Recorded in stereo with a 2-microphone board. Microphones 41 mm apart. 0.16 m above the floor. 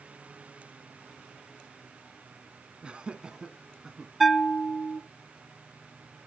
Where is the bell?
Centre (ahead or behind), 0.7 m.